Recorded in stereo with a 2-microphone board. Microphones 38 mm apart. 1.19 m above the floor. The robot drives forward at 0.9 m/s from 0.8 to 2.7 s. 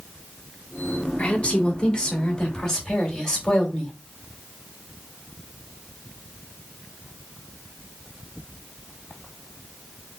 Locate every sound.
1.2 s a woman speaking: 35° left (ahead or behind), 1.2 m; by 4.0 s 15° left (ahead or behind), 2.5 m